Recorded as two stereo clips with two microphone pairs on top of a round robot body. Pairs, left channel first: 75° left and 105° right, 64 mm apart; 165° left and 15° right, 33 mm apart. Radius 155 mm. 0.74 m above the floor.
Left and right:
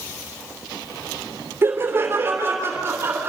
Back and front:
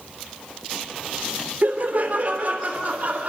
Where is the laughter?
50° right, 3 m.